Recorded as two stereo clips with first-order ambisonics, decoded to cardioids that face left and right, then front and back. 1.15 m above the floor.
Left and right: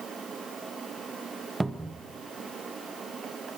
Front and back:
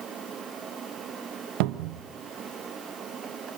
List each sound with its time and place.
1.6 s a cupboard door: 170° right, 1.0 m